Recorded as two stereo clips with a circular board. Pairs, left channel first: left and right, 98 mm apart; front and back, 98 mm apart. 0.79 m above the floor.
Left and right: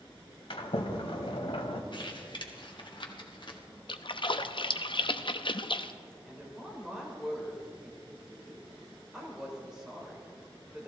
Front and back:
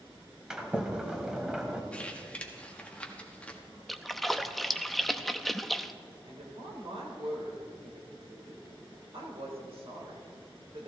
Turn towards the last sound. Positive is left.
turn(degrees=-175)